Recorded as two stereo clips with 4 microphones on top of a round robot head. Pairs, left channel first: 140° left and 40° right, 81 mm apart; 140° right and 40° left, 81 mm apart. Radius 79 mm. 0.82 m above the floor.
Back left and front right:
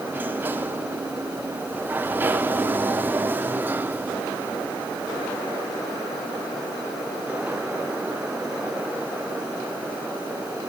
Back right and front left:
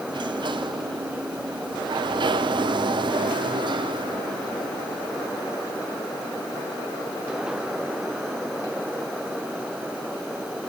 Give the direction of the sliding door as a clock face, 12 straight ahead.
11 o'clock.